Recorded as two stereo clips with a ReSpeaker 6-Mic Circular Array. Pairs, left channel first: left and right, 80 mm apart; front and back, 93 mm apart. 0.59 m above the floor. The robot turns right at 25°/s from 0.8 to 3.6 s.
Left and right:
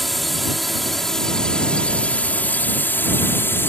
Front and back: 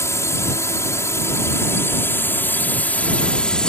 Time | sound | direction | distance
0.0 | a drone | straight ahead | ?